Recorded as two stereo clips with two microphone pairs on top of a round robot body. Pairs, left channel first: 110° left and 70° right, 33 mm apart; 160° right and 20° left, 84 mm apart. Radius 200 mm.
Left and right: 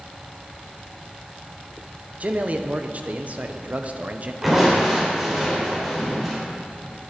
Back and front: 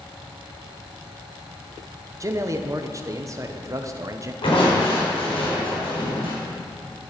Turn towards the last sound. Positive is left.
turn(degrees=-155)